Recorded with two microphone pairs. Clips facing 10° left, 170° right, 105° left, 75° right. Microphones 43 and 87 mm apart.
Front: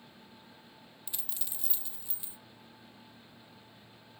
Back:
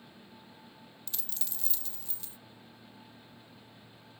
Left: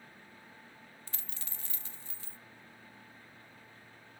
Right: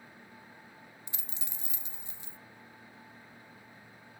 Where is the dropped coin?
30° right, 0.7 m.